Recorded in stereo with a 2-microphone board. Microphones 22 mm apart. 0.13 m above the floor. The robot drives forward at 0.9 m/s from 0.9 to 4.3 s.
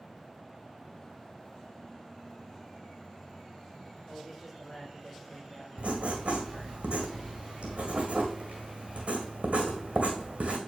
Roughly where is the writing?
Right.